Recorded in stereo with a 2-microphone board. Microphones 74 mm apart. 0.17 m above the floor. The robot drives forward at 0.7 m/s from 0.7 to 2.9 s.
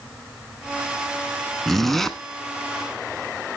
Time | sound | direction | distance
1.7 | a zipper | 5° left (ahead or behind) | 1.1 m